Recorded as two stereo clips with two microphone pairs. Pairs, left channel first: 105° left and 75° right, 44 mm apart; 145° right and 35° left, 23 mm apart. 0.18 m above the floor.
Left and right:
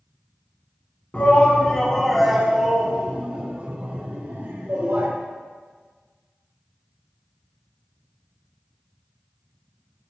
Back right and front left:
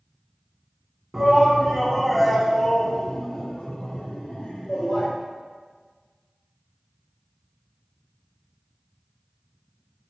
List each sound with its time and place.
1.1 s a shout: 95° left, 1.7 m; by 5.1 s 105° right, 3 m